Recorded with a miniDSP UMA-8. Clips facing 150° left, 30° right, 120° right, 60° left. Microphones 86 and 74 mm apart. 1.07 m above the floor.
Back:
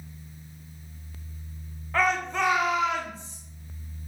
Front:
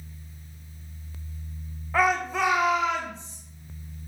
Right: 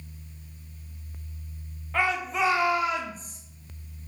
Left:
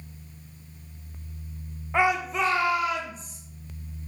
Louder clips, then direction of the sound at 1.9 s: Front 2 dB, left 3 dB; 40° left.